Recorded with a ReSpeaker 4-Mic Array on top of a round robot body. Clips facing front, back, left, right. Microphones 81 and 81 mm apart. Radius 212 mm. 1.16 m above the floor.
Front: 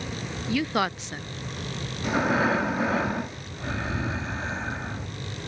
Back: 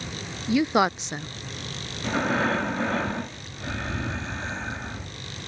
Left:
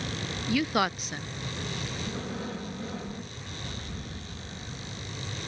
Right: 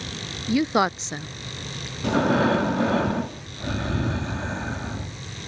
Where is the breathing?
85° right.